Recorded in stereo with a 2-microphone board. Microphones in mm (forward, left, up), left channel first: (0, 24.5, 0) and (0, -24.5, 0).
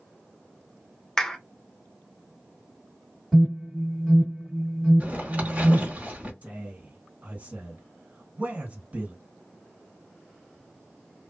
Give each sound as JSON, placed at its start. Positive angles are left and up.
{"t": 1.2, "sound": "a clap", "side_deg": 10, "distance_m": 0.5}
{"t": 3.3, "sound": "an alarm", "side_deg": -5, "distance_m": 2.0}
{"t": 5.0, "sound": "a zipper", "side_deg": -30, "distance_m": 1.1}
{"t": 6.4, "sound": "a man speaking", "side_deg": -35, "distance_m": 2.0}